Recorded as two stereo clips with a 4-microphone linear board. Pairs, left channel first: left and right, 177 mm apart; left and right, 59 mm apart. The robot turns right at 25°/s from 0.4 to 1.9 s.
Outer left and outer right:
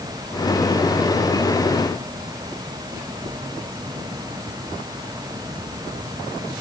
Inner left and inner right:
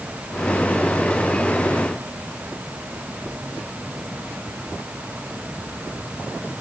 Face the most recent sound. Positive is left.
No sound to turn to.